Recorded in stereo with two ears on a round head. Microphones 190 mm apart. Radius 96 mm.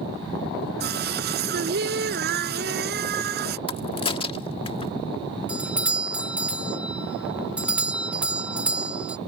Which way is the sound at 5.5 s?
5° right (ahead or behind).